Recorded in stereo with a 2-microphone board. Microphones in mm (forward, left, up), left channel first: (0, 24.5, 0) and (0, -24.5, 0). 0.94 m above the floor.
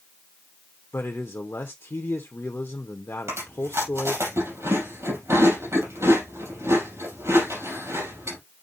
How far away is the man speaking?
About 0.8 m.